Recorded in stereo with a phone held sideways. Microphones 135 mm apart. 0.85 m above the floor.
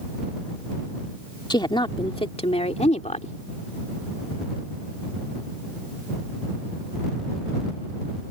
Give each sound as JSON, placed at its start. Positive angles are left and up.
{"t": 1.5, "sound": "a woman speaking", "side_deg": 30}